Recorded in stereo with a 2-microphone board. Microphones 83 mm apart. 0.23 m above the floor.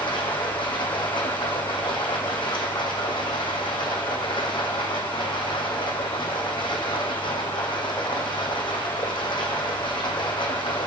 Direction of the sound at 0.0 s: 85° left.